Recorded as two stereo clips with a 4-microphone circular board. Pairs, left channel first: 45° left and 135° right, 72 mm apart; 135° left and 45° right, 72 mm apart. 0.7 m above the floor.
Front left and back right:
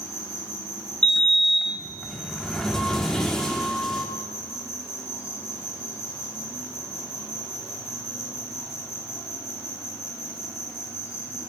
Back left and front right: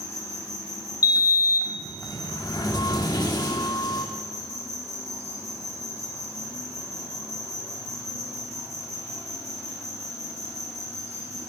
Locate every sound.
0.0 s an insect: 5° right, 1.6 m
1.0 s a sliding door: 125° left, 1.0 m